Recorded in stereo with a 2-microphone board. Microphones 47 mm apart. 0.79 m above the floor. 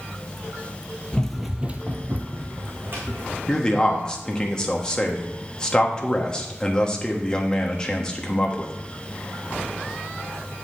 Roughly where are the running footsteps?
Centre.